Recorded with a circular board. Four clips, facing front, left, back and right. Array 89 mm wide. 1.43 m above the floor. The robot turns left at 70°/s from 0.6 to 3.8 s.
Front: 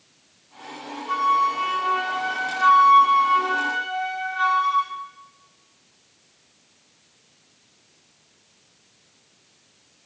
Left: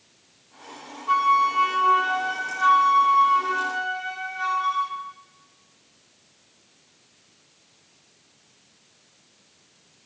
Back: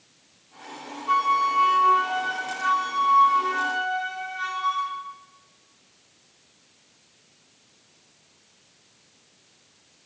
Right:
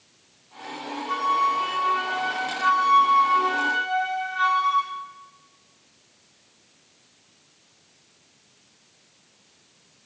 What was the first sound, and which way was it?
A flute, 140° left.